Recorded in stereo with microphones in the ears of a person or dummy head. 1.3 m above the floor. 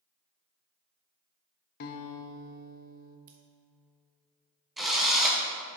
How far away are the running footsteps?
I don't hear running footsteps.